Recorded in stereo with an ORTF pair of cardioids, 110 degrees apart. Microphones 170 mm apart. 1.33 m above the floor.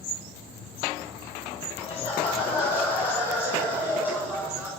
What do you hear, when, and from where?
1.8 s laughter: 30° left, 7.5 m; by 4.7 s straight ahead, 6.5 m